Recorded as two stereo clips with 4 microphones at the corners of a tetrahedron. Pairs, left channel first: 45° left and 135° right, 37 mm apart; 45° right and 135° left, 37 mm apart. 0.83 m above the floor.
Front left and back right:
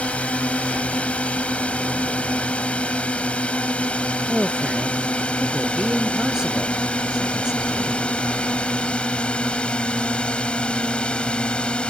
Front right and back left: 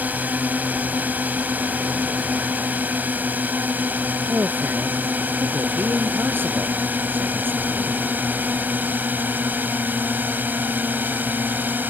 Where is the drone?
100° left; by 11.9 s 110° left.